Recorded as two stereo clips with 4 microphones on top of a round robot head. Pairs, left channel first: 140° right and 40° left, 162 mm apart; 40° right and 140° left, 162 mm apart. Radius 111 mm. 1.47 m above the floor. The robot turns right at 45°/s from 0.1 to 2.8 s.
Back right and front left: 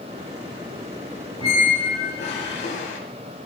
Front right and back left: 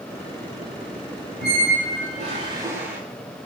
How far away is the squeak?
About 6 m.